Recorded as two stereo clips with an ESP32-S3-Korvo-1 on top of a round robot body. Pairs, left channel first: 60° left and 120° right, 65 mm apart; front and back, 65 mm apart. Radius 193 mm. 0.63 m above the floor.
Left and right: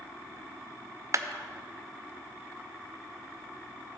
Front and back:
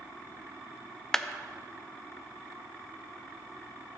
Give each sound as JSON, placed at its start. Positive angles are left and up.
{"t": 1.1, "sound": "a clap", "azimuth_deg": -80, "distance_m": 0.6}